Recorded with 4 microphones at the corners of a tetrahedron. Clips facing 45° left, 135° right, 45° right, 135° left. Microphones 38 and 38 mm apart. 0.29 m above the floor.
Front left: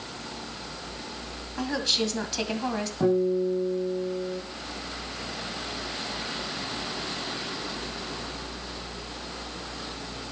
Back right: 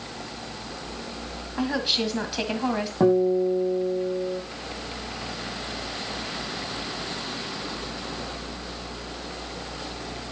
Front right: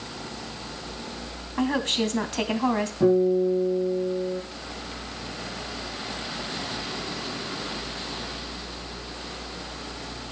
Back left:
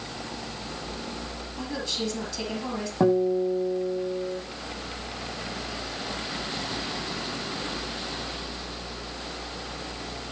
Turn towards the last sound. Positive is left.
turn(degrees=165)